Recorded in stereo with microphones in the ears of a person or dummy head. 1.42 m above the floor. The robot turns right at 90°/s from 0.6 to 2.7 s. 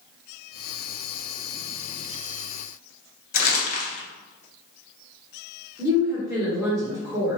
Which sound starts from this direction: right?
A woman speaking, at 5.8 s.